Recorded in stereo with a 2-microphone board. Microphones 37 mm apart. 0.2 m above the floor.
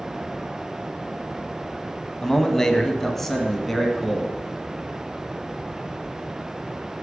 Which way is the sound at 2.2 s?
15° left (ahead or behind).